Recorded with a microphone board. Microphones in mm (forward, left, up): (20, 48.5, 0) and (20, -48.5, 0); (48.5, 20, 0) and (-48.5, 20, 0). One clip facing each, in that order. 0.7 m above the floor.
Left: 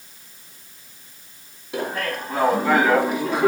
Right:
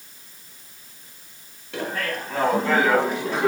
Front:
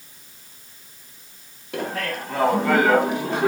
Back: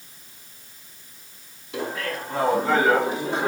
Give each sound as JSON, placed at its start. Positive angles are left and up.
{"t": 1.7, "sound": "laughter", "azimuth_deg": 15, "distance_m": 4.5}